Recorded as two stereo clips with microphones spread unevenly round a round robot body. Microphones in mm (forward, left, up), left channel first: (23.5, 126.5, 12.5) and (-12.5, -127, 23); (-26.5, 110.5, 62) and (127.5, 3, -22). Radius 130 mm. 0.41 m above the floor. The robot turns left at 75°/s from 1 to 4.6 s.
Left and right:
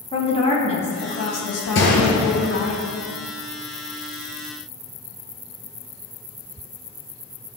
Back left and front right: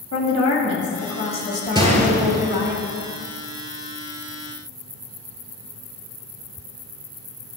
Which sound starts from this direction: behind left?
A woman speaking, at 0.1 s.